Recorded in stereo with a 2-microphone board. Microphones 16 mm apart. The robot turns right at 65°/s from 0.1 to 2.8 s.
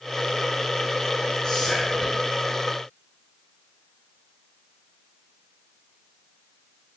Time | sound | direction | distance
1.4 | whispering | 45° left | 1.5 m